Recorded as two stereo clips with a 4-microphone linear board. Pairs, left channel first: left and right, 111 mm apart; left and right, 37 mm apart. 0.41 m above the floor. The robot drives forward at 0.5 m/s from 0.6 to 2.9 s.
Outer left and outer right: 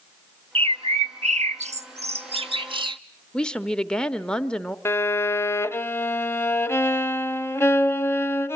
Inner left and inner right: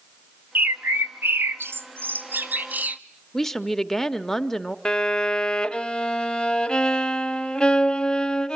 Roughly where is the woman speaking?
Centre.